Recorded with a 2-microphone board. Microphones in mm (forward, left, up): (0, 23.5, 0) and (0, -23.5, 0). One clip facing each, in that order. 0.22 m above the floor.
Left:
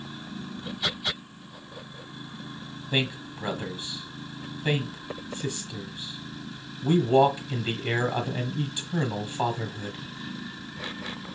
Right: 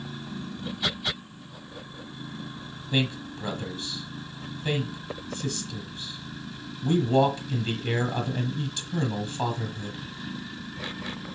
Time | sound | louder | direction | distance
2.9 | a man speaking | right 1 dB | 20° left (ahead or behind) | 1.3 m